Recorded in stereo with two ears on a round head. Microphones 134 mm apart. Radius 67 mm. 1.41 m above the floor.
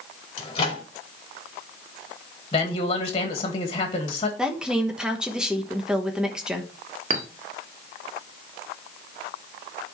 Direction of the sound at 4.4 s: 5° right (ahead or behind).